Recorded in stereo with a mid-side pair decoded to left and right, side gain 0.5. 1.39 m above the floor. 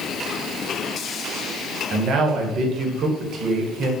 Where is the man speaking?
60° right, 1.0 m.